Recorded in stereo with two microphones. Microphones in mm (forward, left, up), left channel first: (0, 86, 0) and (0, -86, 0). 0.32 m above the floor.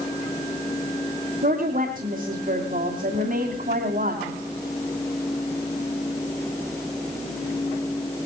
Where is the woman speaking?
55° right (ahead or behind), 2.5 m.